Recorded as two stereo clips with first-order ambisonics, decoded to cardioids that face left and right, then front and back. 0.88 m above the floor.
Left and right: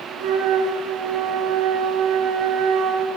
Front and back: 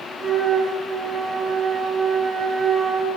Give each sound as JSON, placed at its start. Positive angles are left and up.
{"t": 0.2, "sound": "a flute", "azimuth_deg": -110, "distance_m": 1.2}